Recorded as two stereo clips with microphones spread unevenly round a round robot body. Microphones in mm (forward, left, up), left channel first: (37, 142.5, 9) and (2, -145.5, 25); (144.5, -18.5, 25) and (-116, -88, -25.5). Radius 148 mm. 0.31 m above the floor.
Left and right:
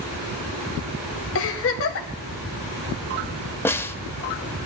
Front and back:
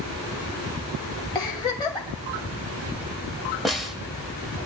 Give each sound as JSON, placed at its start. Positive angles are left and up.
{"t": 1.4, "sound": "a giggle", "azimuth_deg": 100, "distance_m": 1.8}
{"t": 3.6, "sound": "a snare drum", "azimuth_deg": 140, "distance_m": 0.7}